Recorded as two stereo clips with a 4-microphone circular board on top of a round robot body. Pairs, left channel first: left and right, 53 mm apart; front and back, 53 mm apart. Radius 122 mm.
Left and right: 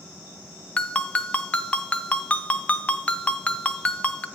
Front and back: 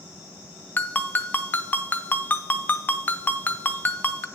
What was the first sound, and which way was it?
A ringtone, 35° left.